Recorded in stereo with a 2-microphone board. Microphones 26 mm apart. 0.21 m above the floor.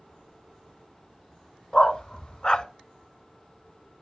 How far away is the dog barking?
About 0.5 m.